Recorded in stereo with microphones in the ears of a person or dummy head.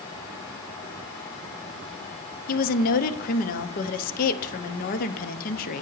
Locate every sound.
2.5 s a woman speaking: 45° left (ahead or behind), 0.6 m